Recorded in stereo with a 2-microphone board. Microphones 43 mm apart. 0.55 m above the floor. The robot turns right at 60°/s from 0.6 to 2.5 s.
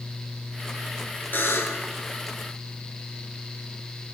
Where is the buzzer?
55° left, 2.5 m; by 1.9 s 85° left, 2.5 m.